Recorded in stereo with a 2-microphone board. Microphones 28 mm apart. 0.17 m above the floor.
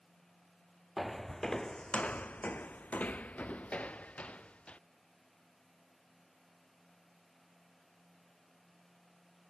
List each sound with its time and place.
1.0 s footsteps: centre (ahead or behind); by 4.8 s 55° left (ahead or behind)